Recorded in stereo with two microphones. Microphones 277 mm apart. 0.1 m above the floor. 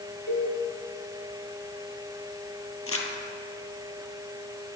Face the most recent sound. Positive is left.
turn(degrees=55)  # may be behind; listen again after turning